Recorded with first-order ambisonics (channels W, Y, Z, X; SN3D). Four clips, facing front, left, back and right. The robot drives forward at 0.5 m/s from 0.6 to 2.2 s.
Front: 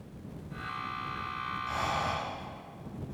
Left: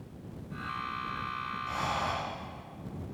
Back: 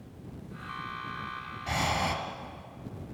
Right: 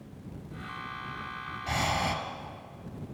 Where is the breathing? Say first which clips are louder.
Right 4 dB, back 4 dB; 135° right, 2 m; by 2.1 s 140° right, 2.5 m.